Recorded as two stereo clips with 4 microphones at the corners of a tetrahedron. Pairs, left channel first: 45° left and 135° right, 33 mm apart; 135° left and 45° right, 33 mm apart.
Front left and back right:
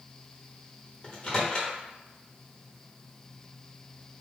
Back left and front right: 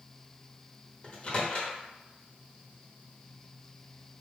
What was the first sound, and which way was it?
A microwave, 95° left.